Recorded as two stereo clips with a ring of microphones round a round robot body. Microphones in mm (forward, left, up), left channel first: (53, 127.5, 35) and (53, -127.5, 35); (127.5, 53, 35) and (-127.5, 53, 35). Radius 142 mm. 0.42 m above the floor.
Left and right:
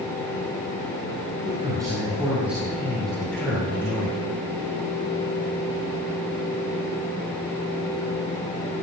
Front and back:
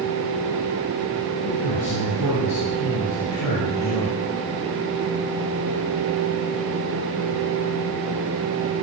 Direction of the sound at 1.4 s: 20° right.